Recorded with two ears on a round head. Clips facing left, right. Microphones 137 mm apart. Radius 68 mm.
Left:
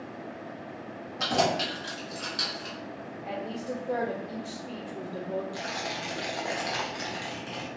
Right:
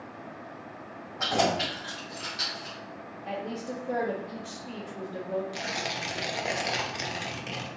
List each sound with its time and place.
1.2 s keys jangling: 35° left (ahead or behind), 1.5 m; by 2.8 s 65° left (ahead or behind), 2 m
3.2 s a woman speaking: centre (ahead or behind), 0.7 m
5.5 s tearing paper: 25° right (ahead or behind), 0.6 m